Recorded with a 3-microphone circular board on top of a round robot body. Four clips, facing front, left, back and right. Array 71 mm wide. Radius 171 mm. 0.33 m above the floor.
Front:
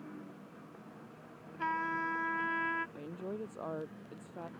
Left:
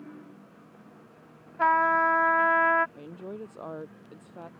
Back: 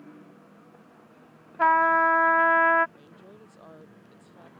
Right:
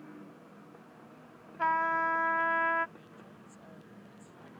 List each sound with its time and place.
1.6 s a trumpet: 155° left
3.0 s a woman speaking: 60° left